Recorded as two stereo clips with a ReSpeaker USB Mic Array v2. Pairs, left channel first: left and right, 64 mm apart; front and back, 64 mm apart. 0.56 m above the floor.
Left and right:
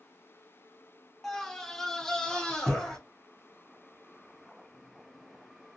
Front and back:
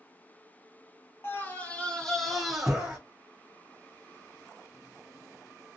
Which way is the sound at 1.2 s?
10° left.